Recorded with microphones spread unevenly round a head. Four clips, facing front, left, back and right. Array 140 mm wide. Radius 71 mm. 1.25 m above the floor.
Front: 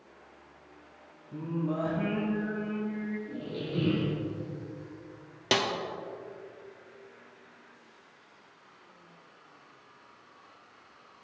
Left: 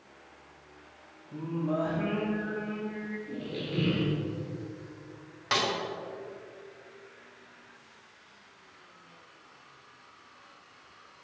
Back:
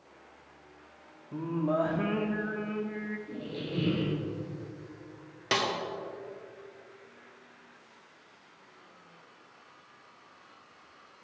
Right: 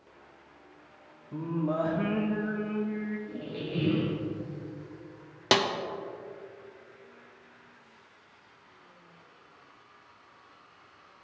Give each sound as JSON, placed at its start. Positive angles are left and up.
{"t": 1.3, "sound": "singing", "azimuth_deg": -150, "distance_m": 1.0}
{"t": 3.3, "sound": "a squeak", "azimuth_deg": 30, "distance_m": 2.0}
{"t": 5.5, "sound": "a snare drum", "azimuth_deg": -80, "distance_m": 0.7}